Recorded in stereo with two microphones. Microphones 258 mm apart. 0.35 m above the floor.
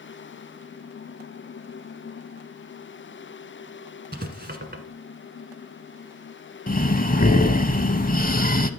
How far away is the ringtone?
I don't hear a ringtone.